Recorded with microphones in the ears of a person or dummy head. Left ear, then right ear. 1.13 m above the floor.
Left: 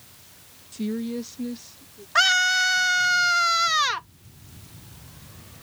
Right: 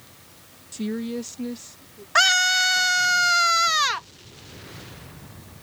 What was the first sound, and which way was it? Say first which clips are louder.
A woman speaking: right 1 dB; 20° right (ahead or behind).